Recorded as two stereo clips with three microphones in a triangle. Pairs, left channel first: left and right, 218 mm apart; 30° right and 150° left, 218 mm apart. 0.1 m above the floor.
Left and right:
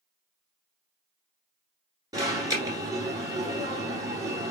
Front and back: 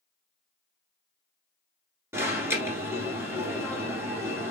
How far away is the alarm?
About 1.3 m.